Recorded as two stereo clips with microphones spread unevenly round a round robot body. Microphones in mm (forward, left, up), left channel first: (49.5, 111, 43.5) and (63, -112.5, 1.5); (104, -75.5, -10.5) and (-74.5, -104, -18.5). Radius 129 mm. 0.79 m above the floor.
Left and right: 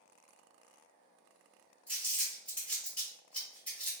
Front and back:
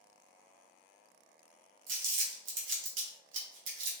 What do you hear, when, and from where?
1.9 s crumpling: straight behind, 0.7 m